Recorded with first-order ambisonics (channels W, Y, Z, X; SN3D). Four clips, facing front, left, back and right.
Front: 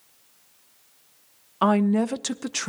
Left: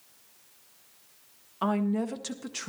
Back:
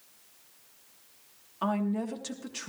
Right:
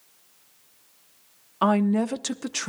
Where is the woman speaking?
35° right, 0.5 m.